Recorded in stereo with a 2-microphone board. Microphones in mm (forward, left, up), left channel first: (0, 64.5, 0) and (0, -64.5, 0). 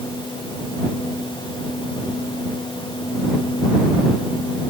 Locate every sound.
Only background noise.